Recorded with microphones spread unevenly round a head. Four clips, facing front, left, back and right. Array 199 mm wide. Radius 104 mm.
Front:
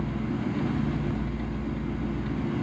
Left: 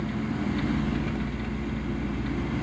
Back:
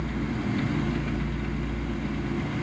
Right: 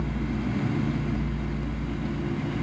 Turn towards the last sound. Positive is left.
No sound to turn to.